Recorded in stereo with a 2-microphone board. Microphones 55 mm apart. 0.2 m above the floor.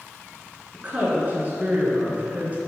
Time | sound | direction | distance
0.7 | a woman speaking | 30° right (ahead or behind) | 3 m